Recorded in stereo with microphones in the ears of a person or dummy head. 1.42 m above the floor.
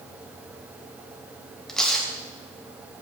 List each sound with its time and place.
1.7 s tearing paper: 5° left (ahead or behind), 1.5 m